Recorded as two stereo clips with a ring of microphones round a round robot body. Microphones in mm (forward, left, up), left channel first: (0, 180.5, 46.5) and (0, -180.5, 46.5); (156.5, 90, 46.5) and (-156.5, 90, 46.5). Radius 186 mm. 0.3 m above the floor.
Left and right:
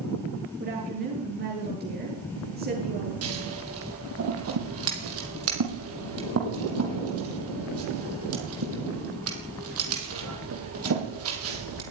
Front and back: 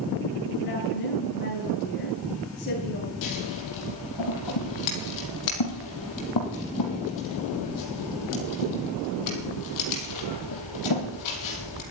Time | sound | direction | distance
0.6 | a woman speaking | 25° right | 7.5 m
3.2 | scissors | 35° right | 5 m